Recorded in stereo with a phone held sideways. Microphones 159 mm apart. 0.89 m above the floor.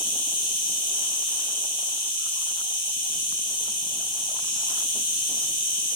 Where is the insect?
60° left (ahead or behind), 0.8 m.